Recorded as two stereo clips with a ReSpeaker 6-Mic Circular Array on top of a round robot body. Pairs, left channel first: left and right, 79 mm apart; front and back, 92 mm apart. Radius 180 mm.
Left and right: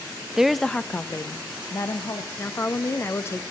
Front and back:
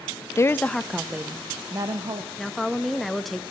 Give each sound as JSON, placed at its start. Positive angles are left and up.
{"t": 0.4, "sound": "a woman speaking", "azimuth_deg": -15, "distance_m": 0.6}
{"t": 2.4, "sound": "a woman speaking", "azimuth_deg": 85, "distance_m": 0.9}